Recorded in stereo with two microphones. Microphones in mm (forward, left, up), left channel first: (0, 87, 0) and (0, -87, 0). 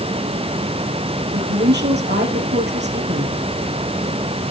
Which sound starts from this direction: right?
A woman speaking, at 1.3 s.